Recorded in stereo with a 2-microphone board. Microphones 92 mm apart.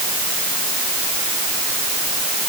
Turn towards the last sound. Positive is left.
No sound to turn to.